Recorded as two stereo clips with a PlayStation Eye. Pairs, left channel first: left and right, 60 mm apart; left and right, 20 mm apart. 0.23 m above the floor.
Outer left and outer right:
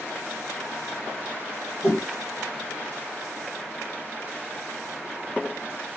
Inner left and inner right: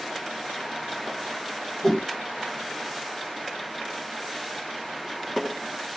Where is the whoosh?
25° left (ahead or behind), 1.1 m.